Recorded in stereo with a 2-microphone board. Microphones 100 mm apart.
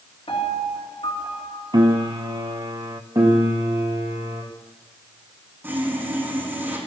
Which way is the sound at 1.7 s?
45° right (ahead or behind).